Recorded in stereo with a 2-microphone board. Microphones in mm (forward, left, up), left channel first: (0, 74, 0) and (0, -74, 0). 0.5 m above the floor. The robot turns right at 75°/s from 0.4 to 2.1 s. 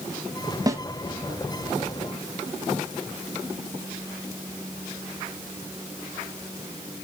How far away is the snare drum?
About 1.3 m.